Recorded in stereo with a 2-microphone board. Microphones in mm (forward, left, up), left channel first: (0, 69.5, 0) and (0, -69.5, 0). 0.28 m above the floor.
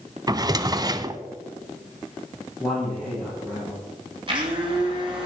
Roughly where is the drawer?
Right.